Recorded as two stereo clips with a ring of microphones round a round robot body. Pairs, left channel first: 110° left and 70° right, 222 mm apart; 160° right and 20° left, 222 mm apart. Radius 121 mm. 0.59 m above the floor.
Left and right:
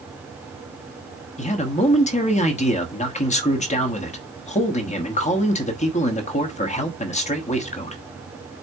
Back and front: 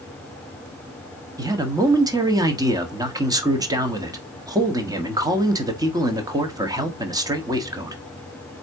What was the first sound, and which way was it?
A man speaking, 85° left.